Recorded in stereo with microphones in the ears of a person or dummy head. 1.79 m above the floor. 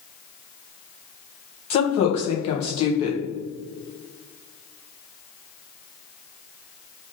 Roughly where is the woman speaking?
Left.